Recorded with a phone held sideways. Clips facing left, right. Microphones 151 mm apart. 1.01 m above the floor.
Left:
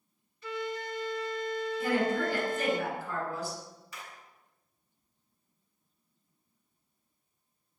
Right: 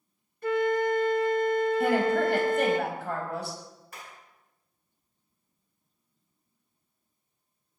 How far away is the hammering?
About 9 m.